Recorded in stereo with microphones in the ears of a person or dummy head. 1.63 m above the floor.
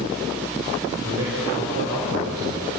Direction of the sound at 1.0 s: 50° right (ahead or behind).